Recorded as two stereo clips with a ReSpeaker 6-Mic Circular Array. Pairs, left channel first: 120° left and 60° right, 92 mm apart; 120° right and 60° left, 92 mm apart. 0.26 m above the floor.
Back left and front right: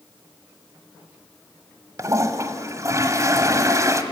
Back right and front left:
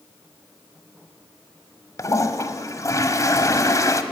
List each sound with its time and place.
2.0 s a toilet flushing: 95° right, 1.3 m